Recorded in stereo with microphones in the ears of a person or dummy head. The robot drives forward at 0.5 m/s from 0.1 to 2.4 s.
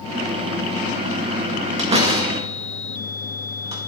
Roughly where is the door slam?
Right.